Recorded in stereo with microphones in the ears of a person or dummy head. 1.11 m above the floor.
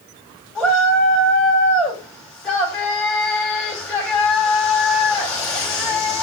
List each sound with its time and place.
0.6 s a shout: 5° left (ahead or behind), 8 m